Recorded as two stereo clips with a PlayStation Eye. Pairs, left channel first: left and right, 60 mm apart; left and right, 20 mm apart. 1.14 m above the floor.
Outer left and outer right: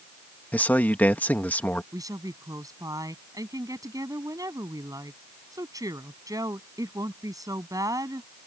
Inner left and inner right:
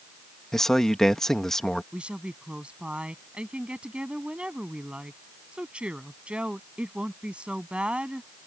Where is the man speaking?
30° left (ahead or behind).